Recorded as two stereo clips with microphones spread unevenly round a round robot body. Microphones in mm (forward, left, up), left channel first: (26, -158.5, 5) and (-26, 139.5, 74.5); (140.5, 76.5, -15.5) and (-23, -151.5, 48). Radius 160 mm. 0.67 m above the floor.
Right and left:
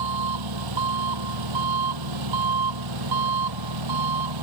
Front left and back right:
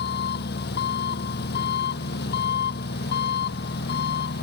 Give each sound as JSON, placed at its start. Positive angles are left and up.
{"t": 0.0, "sound": "an engine running", "azimuth_deg": 115}